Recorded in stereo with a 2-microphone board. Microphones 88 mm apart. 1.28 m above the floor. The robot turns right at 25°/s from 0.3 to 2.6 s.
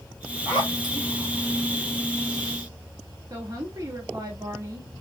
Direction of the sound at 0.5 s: 45° right (ahead or behind).